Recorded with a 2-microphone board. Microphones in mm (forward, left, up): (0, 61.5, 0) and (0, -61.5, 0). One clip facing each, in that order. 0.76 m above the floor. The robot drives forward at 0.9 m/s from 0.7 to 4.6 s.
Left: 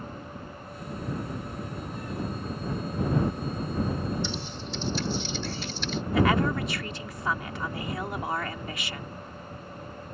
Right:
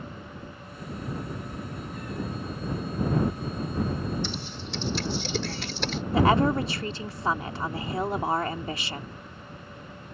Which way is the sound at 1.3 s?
20° left (ahead or behind).